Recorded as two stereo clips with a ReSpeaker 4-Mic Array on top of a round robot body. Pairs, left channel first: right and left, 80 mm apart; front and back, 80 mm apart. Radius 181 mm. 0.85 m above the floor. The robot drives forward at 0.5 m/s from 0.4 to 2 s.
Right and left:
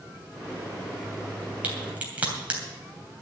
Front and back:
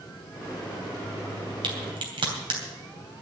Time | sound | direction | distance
1.6 | a crack | 165° left | 3 m